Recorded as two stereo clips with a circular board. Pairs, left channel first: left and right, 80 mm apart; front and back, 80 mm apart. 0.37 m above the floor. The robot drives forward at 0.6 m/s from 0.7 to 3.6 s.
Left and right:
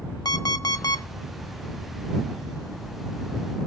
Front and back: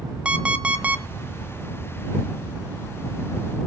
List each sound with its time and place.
0.2 s an alarm clock: 105° left, 1.2 m; by 1.0 s 115° left, 1.3 m